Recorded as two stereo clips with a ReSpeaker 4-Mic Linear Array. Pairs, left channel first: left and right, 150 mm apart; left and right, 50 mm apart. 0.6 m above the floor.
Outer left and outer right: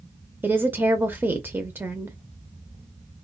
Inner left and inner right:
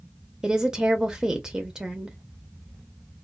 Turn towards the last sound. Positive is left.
turn(degrees=-15)  # may be behind; listen again after turning